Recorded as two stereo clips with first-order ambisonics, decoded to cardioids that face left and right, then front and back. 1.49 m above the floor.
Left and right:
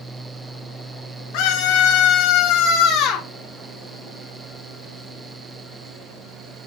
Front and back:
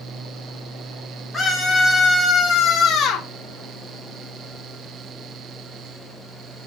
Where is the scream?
90° left, 3.5 m; by 3.3 s 55° left, 3.5 m.